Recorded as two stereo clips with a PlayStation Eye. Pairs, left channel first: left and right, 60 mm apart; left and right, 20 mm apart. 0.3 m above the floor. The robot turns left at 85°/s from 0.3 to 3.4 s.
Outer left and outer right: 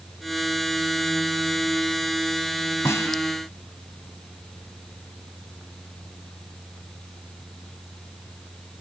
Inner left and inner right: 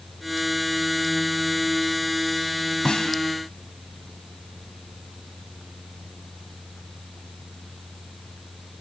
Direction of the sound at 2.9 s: 50° left (ahead or behind).